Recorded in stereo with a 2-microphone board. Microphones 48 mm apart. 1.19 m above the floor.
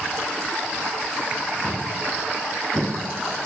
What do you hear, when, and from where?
1.6 s footsteps: 30° right (ahead or behind), 3 m; by 3.5 s 25° right (ahead or behind), 4 m